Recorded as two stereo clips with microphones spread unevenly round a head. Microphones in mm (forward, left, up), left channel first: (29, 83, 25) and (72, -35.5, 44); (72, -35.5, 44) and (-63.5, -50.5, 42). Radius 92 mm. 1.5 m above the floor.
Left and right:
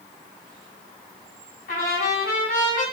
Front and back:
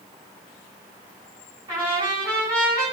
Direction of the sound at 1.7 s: 120° left.